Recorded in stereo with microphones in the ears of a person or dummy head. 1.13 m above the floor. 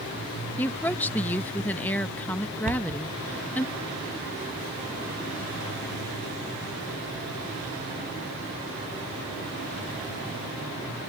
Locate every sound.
0.6 s a woman speaking: 10° left (ahead or behind)
2.6 s a cupboard door: 40° right (ahead or behind)